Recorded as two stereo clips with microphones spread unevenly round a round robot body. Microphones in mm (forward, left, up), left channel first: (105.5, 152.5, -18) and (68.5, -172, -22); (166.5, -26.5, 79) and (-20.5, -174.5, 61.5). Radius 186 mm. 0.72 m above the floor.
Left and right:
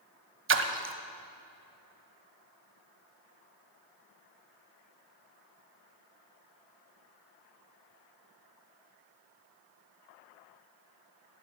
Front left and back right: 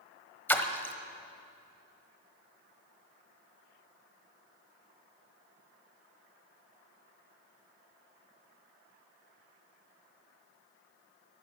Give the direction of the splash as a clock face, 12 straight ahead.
1 o'clock.